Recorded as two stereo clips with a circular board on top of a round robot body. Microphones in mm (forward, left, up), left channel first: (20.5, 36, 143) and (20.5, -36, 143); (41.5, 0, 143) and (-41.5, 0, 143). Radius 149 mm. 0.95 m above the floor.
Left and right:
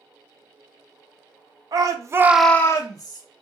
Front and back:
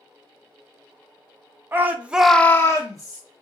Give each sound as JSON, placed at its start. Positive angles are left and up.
{"t": 1.7, "sound": "a shout", "azimuth_deg": -115, "distance_m": 0.9}